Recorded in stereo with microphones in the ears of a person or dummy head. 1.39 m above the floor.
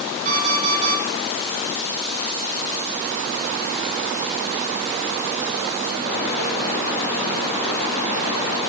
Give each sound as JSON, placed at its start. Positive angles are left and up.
{"t": 0.2, "sound": "an alarm clock", "side_deg": -45, "distance_m": 8.0}